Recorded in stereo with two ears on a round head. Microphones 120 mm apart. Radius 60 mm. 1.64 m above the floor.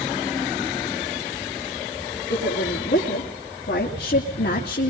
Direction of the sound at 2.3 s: 75° left (ahead or behind).